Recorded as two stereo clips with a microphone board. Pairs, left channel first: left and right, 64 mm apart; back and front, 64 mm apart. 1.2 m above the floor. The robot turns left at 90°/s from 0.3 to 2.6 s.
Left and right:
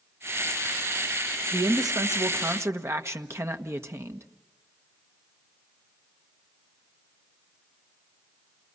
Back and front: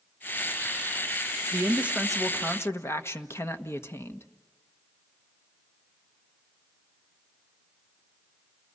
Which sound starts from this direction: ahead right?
A man speaking, at 1.5 s.